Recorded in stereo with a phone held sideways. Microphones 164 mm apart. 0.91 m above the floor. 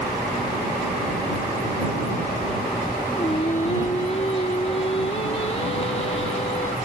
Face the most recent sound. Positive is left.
turn(degrees=40)  # may be behind; listen again after turning